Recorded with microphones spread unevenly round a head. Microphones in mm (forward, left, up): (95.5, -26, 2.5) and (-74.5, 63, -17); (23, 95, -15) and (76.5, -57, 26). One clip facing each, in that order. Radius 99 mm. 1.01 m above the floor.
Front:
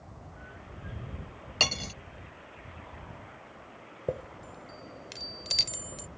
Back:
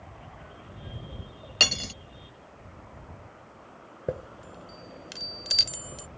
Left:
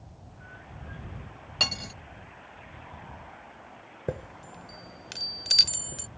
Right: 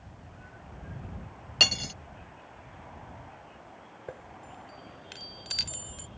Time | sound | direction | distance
1.6 | cutlery clinking | 130° right | ?
4.1 | a chime | 70° left | ?